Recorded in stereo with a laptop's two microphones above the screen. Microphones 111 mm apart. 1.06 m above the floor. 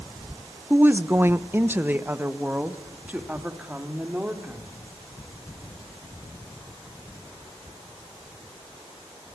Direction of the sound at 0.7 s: 15° right (ahead or behind).